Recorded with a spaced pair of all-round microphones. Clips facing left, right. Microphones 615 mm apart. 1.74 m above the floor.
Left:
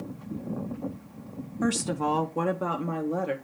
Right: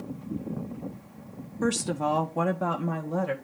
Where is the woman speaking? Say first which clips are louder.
Even; 10° left (ahead or behind), 0.6 m; by 3.3 s 25° right (ahead or behind), 1.3 m.